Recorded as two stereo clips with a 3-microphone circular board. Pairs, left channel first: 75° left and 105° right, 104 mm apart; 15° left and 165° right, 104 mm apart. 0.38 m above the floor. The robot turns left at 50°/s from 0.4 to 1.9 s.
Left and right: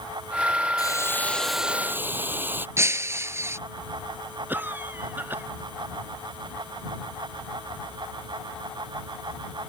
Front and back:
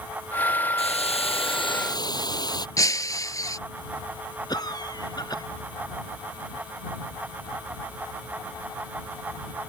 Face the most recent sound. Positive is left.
turn(degrees=-35)